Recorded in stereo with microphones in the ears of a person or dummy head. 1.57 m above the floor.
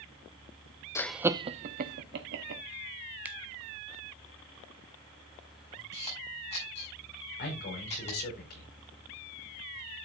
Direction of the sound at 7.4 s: 55° left (ahead or behind).